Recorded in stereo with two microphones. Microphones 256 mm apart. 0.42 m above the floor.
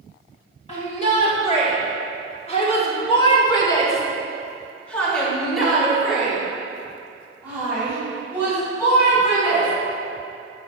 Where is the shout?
25° left (ahead or behind), 1.9 m; by 9.7 s 10° right (ahead or behind), 4 m.